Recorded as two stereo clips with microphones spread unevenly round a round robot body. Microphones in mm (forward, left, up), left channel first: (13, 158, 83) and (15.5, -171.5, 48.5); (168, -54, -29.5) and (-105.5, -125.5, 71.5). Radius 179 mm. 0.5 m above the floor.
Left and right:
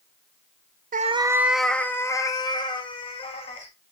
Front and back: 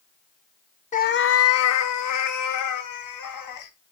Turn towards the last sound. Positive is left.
turn(degrees=15)